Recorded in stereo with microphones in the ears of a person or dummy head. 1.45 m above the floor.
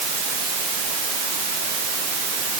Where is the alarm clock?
No alarm clock in this recording.